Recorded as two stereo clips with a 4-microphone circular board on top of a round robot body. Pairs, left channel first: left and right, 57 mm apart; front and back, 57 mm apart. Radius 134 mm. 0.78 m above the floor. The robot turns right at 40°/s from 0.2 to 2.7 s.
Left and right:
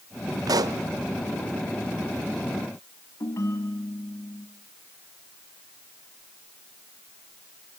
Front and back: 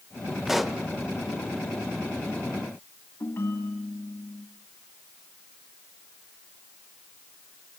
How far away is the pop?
About 1.2 m.